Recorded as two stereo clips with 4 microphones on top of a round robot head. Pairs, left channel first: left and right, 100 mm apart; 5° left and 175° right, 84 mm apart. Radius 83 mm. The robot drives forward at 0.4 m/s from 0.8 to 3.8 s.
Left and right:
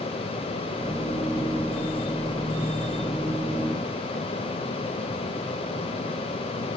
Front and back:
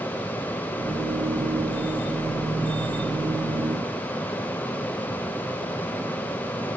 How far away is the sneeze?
I don't hear a sneeze.